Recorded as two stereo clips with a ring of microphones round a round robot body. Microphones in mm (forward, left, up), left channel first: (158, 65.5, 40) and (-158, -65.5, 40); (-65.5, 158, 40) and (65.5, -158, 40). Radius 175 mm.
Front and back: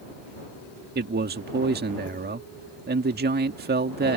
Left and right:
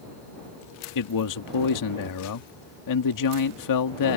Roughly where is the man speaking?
Behind left.